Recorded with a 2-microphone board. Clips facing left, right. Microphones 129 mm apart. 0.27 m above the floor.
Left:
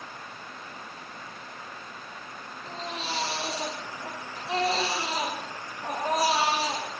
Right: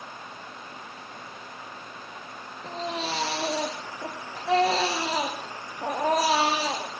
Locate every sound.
2.6 s a baby crying: 85° right, 5 m